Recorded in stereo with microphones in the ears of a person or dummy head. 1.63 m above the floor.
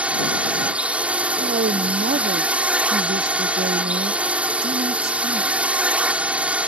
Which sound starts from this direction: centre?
A drone, at 0.0 s.